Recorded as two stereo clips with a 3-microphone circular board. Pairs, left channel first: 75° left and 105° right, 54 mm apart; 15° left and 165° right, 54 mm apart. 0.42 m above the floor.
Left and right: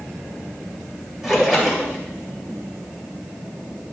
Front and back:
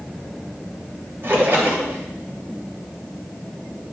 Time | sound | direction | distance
1.2 | a splash | 170° left | 1.9 m